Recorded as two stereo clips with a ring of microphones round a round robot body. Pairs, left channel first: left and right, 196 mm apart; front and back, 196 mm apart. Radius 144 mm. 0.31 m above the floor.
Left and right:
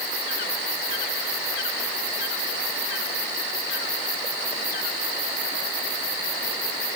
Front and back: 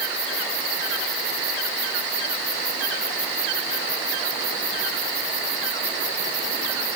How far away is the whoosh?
No whoosh in this recording.